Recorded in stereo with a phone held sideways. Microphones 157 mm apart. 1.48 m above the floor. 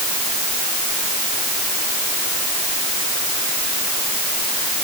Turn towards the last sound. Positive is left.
No sound to turn to.